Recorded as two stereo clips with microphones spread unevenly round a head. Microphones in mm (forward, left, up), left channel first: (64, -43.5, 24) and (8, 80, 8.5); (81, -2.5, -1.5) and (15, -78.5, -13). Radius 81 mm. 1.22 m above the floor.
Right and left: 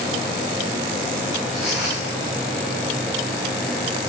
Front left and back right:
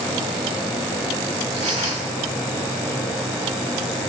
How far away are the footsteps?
About 5.5 m.